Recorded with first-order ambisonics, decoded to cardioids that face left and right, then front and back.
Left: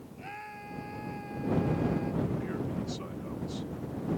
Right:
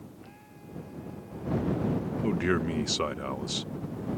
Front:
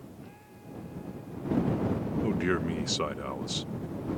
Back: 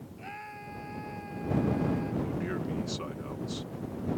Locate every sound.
0.2 s a scream: 135° left
2.2 s a man speaking: 60° right